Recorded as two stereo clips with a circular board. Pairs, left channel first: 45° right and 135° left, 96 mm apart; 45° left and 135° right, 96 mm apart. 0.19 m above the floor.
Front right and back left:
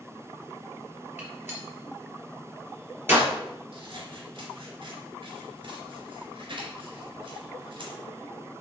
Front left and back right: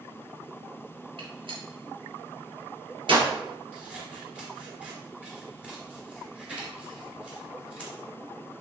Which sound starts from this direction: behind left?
Scissors, at 3.7 s.